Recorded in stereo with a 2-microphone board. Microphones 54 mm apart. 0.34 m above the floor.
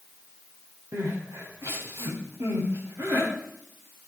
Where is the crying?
60° right (ahead or behind), 7 m.